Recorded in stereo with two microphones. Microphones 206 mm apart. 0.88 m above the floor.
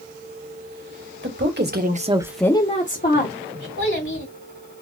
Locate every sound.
1.2 s a woman speaking: 65° right (ahead or behind), 1.3 m; by 3.7 s 60° left (ahead or behind), 1.6 m
3.8 s a child speaking: 80° left, 2 m